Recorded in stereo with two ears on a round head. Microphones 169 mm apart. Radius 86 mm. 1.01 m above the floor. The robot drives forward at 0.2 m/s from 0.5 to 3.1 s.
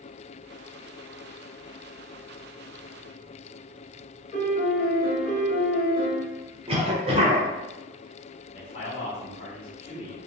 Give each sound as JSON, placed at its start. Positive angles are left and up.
{"t": 4.3, "sound": "a piano", "side_deg": 45, "distance_m": 1.0}
{"t": 6.7, "sound": "a cough", "side_deg": -30, "distance_m": 0.5}
{"t": 8.5, "sound": "a man speaking", "side_deg": 30, "distance_m": 1.2}